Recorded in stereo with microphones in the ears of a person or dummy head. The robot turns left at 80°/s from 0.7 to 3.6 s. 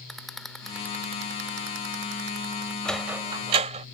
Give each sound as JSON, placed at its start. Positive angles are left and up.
{"t": 0.1, "sound": "a rattle", "side_deg": 0}
{"t": 2.9, "sound": "a sliding door", "side_deg": 10}